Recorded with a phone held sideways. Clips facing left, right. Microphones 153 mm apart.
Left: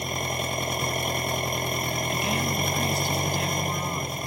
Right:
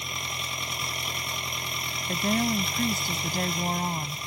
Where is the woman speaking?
50° right (ahead or behind).